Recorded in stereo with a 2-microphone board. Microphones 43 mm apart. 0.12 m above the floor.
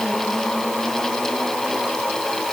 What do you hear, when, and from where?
Only background noise.